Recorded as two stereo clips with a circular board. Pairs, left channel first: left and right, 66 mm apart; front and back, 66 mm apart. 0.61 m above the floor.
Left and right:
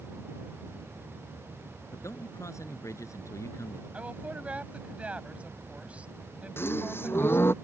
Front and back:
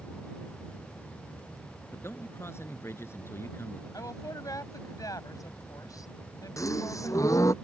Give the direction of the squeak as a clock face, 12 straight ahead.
No squeak in this recording.